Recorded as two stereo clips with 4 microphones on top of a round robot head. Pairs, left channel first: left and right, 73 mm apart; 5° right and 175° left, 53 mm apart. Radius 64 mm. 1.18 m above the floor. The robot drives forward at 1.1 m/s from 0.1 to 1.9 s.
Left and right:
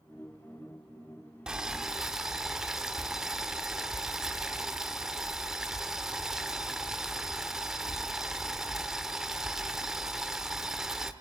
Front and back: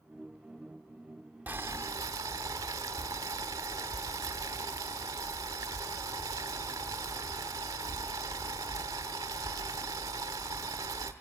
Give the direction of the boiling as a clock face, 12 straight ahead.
5 o'clock.